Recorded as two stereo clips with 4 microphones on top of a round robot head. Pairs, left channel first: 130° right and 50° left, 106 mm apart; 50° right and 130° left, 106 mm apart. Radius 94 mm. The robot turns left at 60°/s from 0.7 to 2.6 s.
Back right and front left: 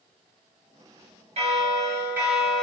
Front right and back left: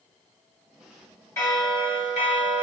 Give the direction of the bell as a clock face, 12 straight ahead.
11 o'clock.